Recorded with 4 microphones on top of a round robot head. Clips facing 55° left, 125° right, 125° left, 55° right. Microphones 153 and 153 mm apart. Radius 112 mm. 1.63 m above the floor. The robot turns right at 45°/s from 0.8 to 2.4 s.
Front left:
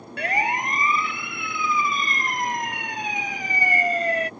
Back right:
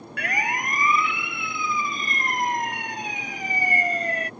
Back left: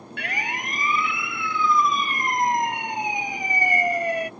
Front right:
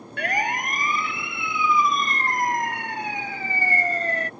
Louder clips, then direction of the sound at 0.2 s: Front left 4 dB, front right 6 dB; 5° right.